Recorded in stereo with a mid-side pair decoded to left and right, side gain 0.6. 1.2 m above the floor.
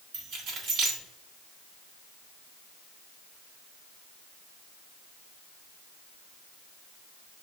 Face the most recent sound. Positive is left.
turn(degrees=-65)